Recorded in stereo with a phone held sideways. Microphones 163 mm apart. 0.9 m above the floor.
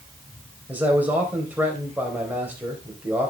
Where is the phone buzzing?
No phone buzzing in this recording.